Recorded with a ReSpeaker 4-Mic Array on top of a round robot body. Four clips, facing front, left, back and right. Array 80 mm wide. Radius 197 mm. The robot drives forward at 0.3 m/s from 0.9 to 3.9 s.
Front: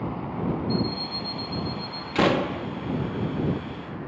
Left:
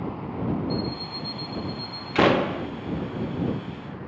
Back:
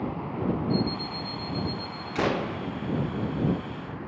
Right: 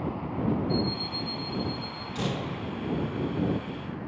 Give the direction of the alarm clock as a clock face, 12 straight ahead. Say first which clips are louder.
Even, even; 9 o'clock.